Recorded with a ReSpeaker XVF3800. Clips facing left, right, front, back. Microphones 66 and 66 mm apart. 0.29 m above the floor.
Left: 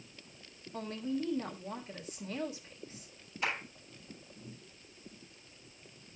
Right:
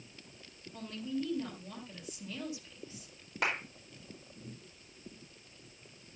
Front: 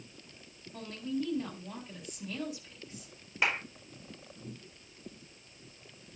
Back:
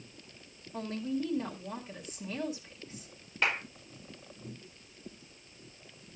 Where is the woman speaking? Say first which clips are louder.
Left 2 dB, back 2 dB; 115° left, 2 m.